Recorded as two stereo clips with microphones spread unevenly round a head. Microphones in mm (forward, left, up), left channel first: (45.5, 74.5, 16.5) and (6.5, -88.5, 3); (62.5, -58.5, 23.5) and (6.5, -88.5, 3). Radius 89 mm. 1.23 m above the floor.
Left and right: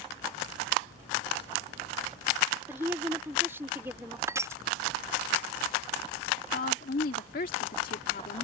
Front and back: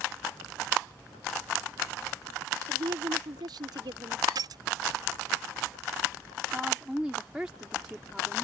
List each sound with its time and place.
2.7 s a woman speaking: straight behind
4.3 s crushing: straight behind
6.5 s a woman speaking: 125° left